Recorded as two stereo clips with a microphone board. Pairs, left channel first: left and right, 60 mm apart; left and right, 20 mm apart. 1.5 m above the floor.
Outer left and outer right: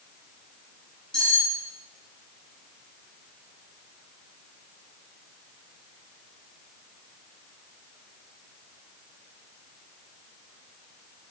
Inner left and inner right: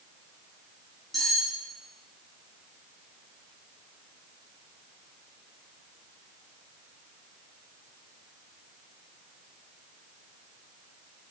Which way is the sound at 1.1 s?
10° left (ahead or behind).